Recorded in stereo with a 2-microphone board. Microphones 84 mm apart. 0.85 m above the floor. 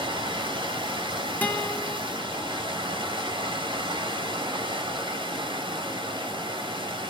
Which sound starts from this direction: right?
Running water, at 0.0 s.